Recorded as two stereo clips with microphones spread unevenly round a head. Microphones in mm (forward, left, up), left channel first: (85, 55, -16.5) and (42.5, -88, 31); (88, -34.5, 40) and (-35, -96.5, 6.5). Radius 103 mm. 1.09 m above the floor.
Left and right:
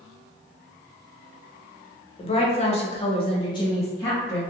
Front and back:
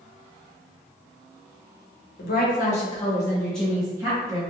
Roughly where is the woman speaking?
Ahead left.